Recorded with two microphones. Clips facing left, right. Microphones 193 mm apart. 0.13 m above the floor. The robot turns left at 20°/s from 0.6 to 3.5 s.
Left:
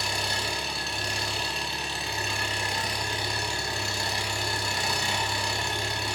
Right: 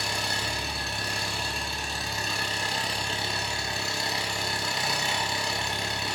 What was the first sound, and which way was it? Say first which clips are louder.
An engine running: left 1 dB; 95° right.